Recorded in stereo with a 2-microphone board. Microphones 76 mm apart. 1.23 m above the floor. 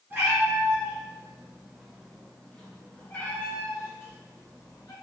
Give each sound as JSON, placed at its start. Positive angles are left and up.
{"t": 0.1, "sound": "a cat meowing", "side_deg": -30, "distance_m": 1.8}